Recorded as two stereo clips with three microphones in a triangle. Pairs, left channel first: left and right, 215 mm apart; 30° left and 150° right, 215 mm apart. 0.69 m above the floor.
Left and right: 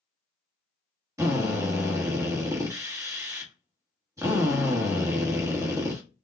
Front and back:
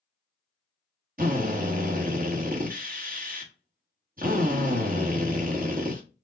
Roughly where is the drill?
Behind.